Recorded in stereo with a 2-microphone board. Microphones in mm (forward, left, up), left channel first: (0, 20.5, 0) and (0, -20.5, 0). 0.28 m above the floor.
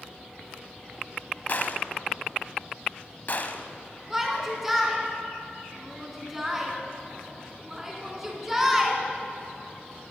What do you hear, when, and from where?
1.5 s a gunshot: 50° left (ahead or behind), 0.8 m
4.1 s a shout: 10° right (ahead or behind), 3 m